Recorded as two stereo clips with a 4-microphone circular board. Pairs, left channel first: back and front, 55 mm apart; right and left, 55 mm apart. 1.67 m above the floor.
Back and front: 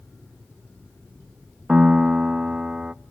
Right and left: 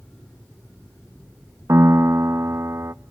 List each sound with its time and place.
1.7 s a piano: 75° left, 0.5 m